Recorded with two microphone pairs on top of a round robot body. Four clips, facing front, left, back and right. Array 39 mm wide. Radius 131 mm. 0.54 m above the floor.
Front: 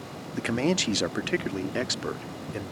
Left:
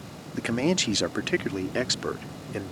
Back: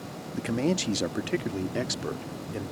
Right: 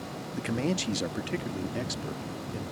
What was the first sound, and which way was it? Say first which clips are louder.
A man speaking: left 5 dB, front 2 dB; 50° left.